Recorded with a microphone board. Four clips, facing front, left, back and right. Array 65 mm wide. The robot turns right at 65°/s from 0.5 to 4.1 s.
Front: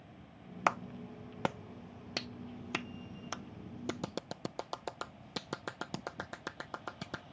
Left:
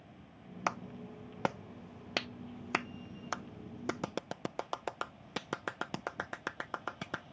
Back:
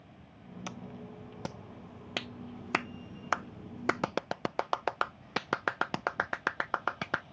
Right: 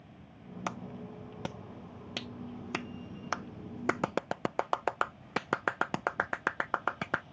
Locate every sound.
0.7 s a clap: 15° left; by 7.2 s 125° right